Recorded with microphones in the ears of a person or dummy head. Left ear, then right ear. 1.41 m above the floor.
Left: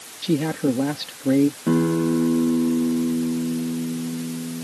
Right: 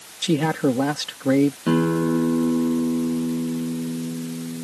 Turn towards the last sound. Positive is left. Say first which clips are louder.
# even
turn(degrees=-90)